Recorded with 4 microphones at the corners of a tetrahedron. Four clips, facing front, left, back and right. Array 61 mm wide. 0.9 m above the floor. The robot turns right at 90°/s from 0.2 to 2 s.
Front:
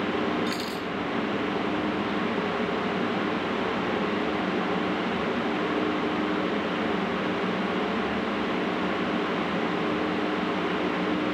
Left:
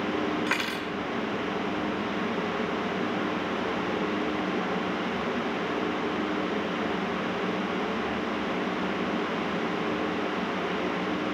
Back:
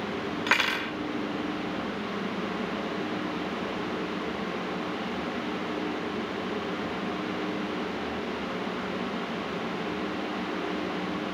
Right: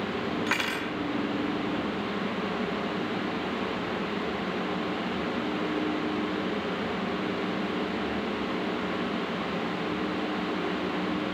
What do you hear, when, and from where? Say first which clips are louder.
0.5 s cutlery clinking: even, back 4 dB; 170° left; by 0.9 s 145° right